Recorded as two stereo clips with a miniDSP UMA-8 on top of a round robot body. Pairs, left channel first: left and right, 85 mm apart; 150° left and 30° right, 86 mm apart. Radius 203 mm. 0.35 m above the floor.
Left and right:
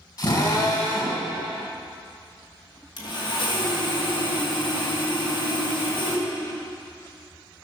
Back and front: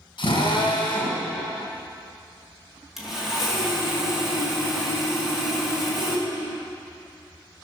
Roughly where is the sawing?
Ahead left.